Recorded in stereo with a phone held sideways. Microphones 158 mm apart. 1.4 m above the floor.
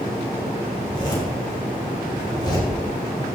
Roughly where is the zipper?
Left.